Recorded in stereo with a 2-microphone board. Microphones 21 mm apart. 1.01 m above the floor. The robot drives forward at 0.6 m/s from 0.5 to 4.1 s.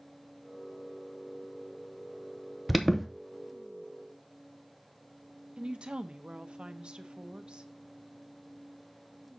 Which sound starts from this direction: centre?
An alarm, at 2.7 s.